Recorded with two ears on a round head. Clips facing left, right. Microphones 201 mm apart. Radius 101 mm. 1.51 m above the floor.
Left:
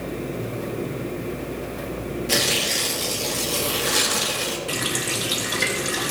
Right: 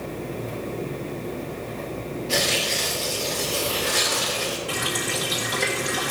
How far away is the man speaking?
No man speaking in this recording.